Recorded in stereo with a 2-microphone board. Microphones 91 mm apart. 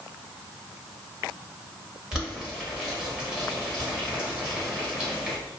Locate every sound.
2.1 s boiling: 10° right (ahead or behind), 1.0 m